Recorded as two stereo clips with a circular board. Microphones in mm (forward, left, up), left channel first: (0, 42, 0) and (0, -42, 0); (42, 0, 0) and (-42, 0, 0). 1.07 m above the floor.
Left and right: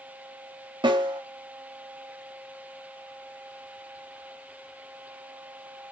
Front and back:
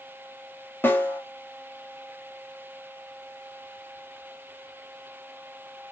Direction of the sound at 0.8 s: 65° right.